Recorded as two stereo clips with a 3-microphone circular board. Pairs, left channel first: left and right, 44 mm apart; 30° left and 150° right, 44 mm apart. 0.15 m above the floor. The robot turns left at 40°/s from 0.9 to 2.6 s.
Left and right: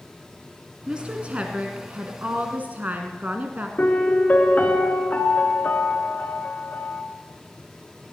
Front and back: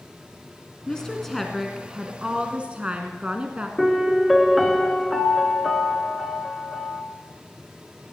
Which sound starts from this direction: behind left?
A piano, at 3.8 s.